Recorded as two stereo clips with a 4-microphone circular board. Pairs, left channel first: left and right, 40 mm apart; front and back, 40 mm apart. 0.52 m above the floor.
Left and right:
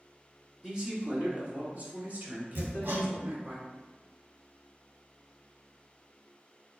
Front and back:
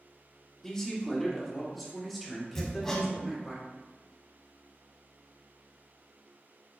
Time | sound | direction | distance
0.6 | a man speaking | 45° right | 1.2 m
2.5 | hammering | 75° right | 1.3 m